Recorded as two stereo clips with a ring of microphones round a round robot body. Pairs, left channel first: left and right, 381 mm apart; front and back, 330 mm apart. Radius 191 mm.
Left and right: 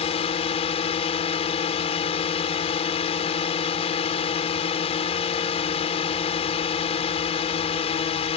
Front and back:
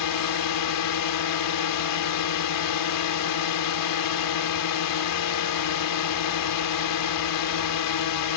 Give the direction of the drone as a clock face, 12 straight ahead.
11 o'clock.